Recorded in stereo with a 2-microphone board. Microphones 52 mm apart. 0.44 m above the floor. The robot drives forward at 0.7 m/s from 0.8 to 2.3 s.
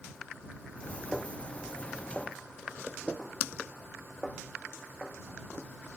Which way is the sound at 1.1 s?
5° left (ahead or behind).